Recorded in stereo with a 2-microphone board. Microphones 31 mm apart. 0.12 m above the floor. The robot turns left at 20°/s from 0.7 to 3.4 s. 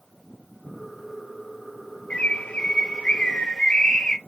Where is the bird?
40° left (ahead or behind), 0.6 m; by 4.2 s 20° left (ahead or behind), 0.6 m.